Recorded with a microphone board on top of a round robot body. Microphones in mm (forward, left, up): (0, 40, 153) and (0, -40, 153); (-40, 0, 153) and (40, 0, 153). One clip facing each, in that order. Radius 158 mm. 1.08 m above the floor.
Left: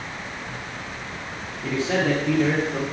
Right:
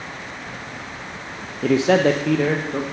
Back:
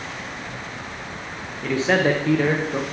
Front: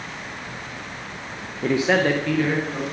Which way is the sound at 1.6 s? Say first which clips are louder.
Right 7 dB, even; 55° right.